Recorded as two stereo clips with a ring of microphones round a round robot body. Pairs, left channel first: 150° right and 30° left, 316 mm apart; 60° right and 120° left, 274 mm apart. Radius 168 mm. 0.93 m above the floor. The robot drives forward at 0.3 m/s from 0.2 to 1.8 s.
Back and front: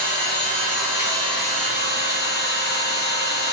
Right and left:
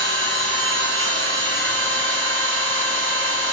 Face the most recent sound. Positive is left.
turn(degrees=180)